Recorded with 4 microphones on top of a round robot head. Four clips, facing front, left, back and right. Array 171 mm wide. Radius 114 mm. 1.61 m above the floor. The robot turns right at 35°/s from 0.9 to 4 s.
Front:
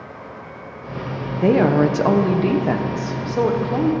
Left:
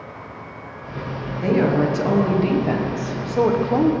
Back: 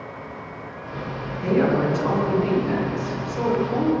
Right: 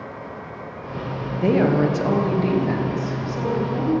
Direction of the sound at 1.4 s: 20° right.